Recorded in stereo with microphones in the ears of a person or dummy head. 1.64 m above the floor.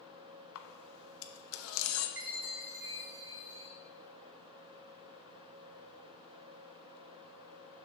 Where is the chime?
55° right (ahead or behind), 0.8 m.